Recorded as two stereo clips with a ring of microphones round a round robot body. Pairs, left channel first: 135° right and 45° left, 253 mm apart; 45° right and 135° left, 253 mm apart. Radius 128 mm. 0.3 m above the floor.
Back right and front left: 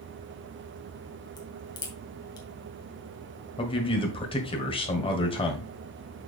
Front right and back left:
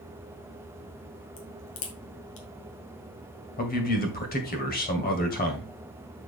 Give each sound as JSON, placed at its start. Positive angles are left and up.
{"t": 1.4, "sound": "a crack", "azimuth_deg": -65, "distance_m": 2.0}
{"t": 3.6, "sound": "a man speaking", "azimuth_deg": -75, "distance_m": 1.9}